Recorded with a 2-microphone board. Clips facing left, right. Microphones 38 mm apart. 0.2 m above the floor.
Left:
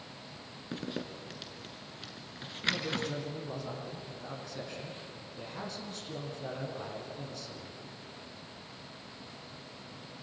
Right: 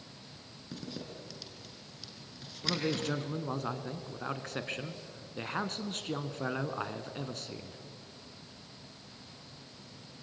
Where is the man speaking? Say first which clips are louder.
Even; 55° right (ahead or behind), 2.5 m.